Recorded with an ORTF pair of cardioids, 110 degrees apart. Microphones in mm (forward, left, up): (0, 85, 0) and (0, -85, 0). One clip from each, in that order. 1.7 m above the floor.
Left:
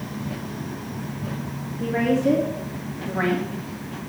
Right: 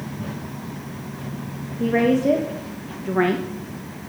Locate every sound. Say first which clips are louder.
1.8 s a woman speaking: right 3 dB; 60° right, 2 m; by 3.5 s 50° right, 1.1 m